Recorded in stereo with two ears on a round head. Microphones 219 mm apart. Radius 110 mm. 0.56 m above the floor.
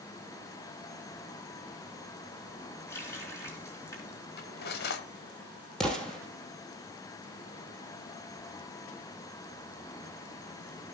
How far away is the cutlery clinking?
About 1.5 m.